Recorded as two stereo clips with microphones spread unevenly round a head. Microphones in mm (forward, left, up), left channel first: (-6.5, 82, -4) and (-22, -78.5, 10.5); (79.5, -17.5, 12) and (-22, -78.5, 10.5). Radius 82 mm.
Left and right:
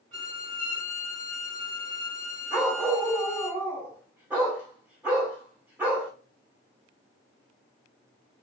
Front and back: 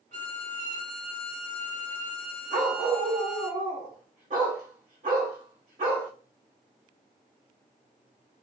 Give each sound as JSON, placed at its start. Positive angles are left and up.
{"t": 0.1, "sound": "a violin", "azimuth_deg": -145, "distance_m": 3.5}
{"t": 2.5, "sound": "a dog barking", "azimuth_deg": -165, "distance_m": 2.5}